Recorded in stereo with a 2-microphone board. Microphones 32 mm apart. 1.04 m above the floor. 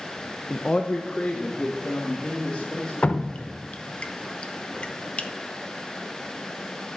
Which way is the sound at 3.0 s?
40° left (ahead or behind).